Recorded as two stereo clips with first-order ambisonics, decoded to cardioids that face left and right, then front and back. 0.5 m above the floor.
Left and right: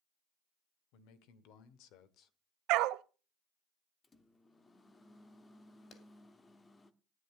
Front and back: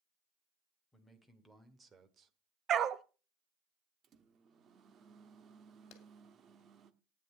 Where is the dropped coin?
No dropped coin in this recording.